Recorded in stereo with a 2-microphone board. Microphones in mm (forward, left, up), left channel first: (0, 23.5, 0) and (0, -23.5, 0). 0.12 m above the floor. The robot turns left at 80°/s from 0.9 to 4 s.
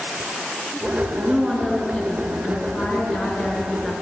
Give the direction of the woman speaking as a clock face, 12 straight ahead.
5 o'clock.